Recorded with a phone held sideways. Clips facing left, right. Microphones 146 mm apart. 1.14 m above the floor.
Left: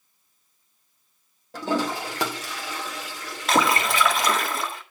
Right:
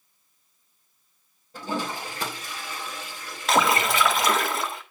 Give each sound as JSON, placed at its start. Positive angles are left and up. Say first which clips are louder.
{"t": 1.5, "sound": "a toilet flushing", "louder": "left 5 dB", "side_deg": 85, "distance_m": 1.8}
{"t": 3.5, "sound": "a splash", "louder": "even", "side_deg": 0, "distance_m": 1.4}